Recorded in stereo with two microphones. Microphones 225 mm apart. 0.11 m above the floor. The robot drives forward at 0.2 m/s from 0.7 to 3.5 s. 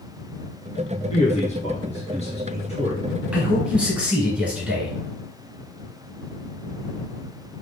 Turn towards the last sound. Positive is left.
turn(degrees=-5)  # may be behind; listen again after turning